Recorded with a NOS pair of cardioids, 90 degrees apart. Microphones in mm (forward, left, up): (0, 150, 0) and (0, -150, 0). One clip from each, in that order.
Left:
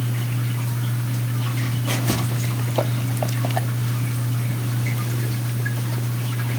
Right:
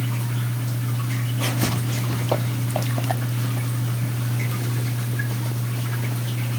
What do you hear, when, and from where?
Only background noise.